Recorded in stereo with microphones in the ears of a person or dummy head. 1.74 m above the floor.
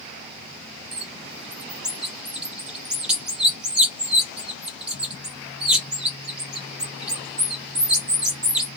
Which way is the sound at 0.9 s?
10° right (ahead or behind).